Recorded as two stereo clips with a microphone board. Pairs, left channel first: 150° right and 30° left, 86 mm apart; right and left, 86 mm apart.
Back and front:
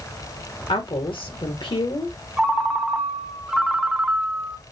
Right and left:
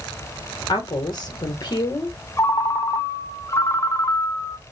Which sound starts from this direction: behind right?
A woman speaking, at 0.7 s.